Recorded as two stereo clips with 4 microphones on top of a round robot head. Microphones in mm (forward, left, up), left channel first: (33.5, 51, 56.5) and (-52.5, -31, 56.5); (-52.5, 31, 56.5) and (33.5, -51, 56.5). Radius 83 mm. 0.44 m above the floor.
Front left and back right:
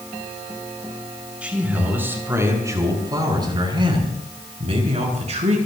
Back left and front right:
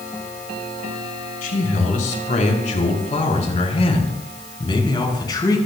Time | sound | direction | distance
1.4 | a man speaking | 145° left | 6.5 m